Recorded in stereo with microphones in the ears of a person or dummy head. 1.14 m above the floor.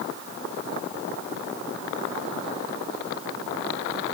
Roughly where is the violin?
No violin in this recording.